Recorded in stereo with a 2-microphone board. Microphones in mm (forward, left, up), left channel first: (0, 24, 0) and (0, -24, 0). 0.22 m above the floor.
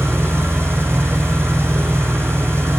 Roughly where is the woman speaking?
No woman speaking in this recording.